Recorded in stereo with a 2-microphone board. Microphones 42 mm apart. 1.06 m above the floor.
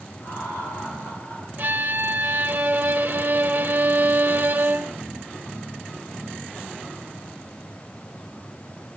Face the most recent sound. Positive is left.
turn(degrees=-50)  # may be behind; listen again after turning